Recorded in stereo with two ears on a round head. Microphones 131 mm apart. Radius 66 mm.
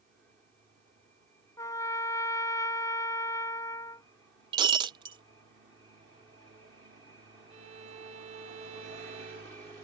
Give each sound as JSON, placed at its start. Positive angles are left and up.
{"t": 1.6, "sound": "a trumpet", "side_deg": 20}
{"t": 4.5, "sound": "breaking glass", "side_deg": -30}
{"t": 7.5, "sound": "a violin", "side_deg": -50}